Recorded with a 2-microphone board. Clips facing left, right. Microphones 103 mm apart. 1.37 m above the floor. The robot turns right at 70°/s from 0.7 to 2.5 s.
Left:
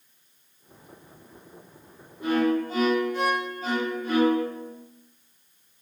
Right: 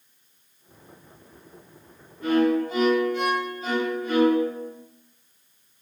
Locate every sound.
2.2 s a violin: 20° left (ahead or behind), 1.0 m; by 4.7 s 40° left (ahead or behind), 1.0 m